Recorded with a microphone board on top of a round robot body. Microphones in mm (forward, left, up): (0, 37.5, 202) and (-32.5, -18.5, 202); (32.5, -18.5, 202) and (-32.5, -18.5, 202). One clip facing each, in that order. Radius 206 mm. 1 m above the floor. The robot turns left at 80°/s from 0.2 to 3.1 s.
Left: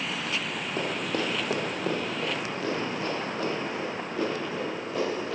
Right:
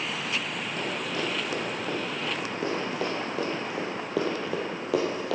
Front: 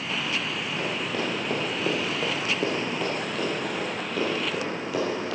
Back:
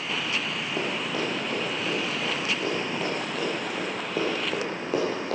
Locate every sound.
0.8 s running footsteps: 120° left, 3 m; by 5.4 s 135° right, 2.5 m